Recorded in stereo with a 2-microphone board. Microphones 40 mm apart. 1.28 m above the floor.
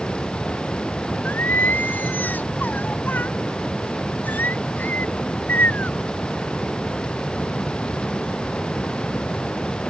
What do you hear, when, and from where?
1.2 s singing: 50° left (ahead or behind)